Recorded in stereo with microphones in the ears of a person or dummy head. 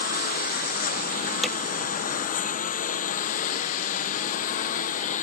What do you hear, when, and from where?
0.0 s a lawn mower: 45° left (ahead or behind); by 5.2 s 40° left (ahead or behind)
1.4 s hammering: centre (ahead or behind)